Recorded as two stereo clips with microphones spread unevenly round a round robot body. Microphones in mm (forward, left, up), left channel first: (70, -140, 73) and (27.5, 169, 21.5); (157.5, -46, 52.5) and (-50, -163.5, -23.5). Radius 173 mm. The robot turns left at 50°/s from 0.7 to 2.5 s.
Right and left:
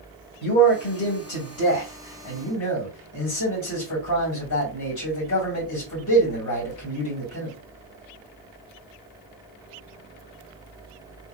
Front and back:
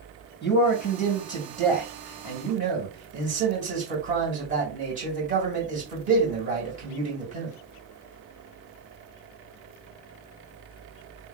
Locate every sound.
0.4 s a man speaking: 25° right, 2.5 m; by 7.5 s 115° right, 2.5 m